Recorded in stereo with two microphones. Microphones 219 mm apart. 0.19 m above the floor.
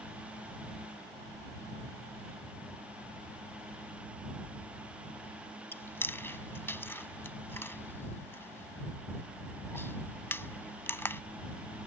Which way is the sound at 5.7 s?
10° left (ahead or behind).